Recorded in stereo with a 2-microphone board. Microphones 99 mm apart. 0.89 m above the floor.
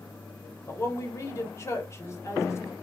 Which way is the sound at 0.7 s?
30° left (ahead or behind).